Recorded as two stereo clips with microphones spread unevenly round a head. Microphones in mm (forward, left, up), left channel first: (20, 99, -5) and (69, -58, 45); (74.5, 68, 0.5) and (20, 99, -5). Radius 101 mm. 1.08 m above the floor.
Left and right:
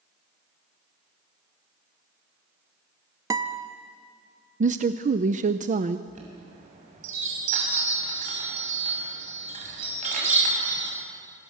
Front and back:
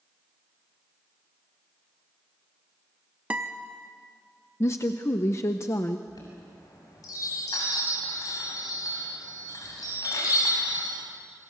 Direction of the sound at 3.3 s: 130° right.